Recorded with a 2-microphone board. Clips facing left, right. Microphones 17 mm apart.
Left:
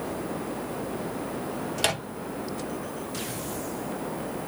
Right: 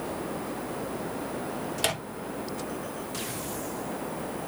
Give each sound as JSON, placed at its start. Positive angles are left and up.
{"t": 1.8, "sound": "a microwave", "side_deg": 5, "distance_m": 0.5}